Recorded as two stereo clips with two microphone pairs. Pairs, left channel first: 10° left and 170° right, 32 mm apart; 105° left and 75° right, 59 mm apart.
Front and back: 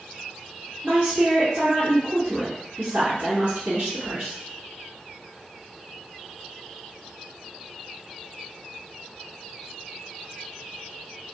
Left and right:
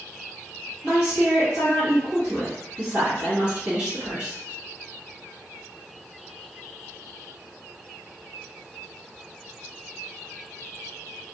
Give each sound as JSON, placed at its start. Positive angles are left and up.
{"t": 0.8, "sound": "a woman speaking", "azimuth_deg": -145, "distance_m": 1.8}